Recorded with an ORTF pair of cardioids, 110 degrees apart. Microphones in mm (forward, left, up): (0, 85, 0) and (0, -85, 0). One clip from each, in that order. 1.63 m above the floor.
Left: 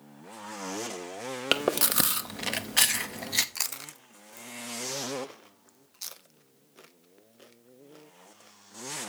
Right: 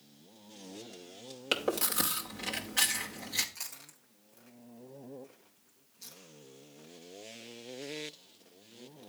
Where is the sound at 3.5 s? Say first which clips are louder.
Left 10 dB; 60° left, 0.6 m.